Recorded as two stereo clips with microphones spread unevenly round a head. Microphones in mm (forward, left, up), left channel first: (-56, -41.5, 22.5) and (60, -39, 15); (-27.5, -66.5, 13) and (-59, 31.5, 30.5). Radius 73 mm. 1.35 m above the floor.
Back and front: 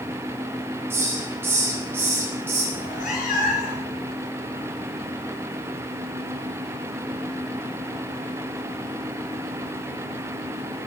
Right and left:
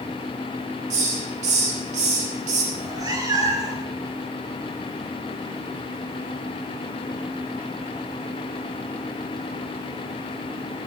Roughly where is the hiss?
Left.